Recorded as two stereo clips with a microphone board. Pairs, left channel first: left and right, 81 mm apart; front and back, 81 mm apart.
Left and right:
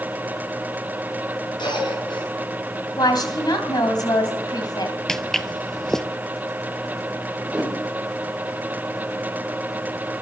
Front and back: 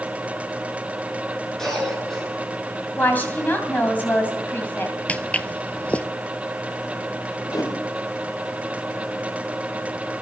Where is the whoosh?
20° right, 3 m.